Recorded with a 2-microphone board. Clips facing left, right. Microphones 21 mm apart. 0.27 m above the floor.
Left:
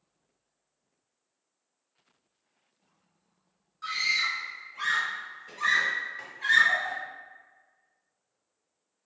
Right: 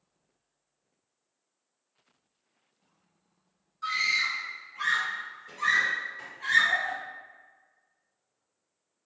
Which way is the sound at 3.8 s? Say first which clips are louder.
Right 1 dB; 10° left (ahead or behind).